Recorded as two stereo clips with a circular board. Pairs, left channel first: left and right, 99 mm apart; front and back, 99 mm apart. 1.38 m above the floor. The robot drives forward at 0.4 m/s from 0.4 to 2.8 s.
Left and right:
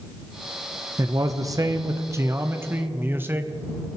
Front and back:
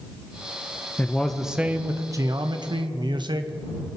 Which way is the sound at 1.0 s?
65° right.